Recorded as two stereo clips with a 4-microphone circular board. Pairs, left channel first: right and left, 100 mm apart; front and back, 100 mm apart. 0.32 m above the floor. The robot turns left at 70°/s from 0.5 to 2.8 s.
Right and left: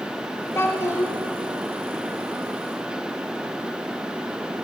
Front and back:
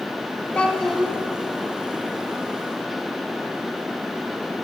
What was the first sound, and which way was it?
A child speaking, 60° right.